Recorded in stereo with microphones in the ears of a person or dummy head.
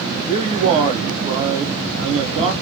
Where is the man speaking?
30° right (ahead or behind), 0.8 m.